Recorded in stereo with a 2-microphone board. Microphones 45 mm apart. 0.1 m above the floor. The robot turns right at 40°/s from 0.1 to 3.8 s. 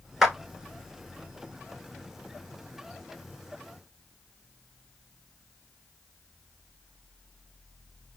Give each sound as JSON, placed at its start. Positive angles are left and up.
{"t": 0.2, "sound": "a clap", "side_deg": -5, "distance_m": 0.9}